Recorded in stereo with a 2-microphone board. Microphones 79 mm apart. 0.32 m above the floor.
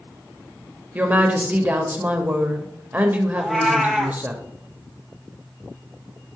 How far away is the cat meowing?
About 0.8 m.